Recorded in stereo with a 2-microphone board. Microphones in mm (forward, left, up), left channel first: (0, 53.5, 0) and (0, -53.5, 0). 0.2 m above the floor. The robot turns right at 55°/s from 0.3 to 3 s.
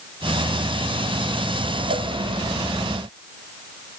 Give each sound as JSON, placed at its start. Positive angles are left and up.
{"t": 1.9, "sound": "a cowbell", "side_deg": -70, "distance_m": 0.6}